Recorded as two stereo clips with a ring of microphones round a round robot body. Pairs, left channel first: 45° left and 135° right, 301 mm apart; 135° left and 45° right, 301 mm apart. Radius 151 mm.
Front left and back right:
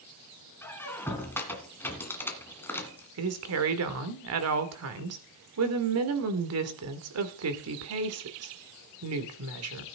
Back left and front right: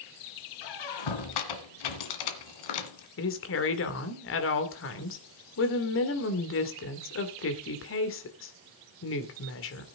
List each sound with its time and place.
0.6 s a squeak: 130° left, 2.0 m
3.2 s a woman speaking: 175° right, 2 m